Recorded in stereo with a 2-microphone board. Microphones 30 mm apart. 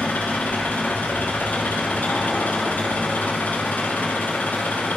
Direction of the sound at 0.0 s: 85° left.